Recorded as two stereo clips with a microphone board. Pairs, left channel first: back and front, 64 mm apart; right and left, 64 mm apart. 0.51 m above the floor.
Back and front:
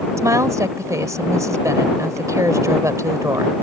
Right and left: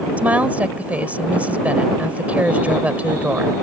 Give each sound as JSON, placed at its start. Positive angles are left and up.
{"t": 0.2, "sound": "a woman speaking", "azimuth_deg": 25}